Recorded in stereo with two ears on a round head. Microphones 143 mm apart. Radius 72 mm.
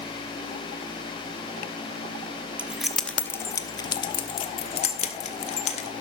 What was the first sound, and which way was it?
Keys jangling, 10° right (ahead or behind).